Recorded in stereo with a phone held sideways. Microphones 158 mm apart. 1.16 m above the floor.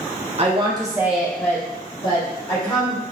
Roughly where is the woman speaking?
Right.